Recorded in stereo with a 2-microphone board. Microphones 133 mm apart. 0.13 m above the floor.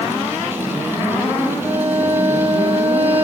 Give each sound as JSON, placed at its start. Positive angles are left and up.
{"t": 1.6, "sound": "a violin", "side_deg": -15, "distance_m": 4.5}